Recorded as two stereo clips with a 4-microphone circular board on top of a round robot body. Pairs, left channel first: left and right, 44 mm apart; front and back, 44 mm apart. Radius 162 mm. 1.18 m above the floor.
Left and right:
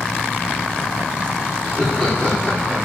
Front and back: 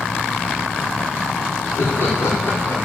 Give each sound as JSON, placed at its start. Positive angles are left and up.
{"t": 1.6, "sound": "laughter", "azimuth_deg": -25, "distance_m": 5.0}